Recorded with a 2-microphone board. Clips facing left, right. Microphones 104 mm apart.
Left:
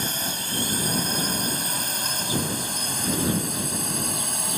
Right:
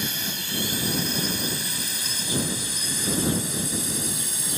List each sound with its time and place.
0.0 s a drone: 40° left (ahead or behind); by 4.6 s 55° left (ahead or behind)